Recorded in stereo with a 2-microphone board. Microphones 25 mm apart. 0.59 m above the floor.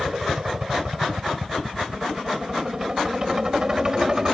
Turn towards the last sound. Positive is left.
turn(degrees=-25)  # may be behind; listen again after turning